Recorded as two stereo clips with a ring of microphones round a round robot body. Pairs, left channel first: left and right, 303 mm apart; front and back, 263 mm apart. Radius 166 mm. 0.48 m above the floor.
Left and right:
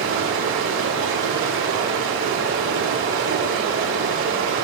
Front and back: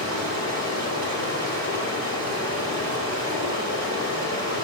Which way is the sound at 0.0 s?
140° right.